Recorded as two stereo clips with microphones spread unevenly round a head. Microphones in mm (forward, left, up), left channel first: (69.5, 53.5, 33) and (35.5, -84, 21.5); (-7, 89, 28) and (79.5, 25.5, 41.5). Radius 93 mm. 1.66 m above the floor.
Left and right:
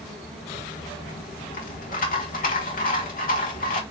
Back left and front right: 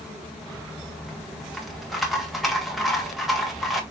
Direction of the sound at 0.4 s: 50° left.